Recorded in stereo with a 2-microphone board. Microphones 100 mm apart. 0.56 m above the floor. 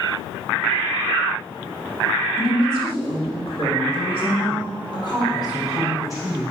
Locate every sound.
2.4 s a woman speaking: 55° left (ahead or behind), 2 m; by 6.5 s 30° left (ahead or behind), 3 m